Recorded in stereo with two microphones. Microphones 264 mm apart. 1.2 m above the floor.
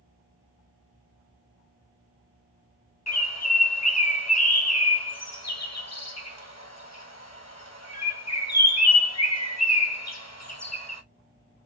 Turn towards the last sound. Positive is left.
turn(degrees=70)  # may be behind; listen again after turning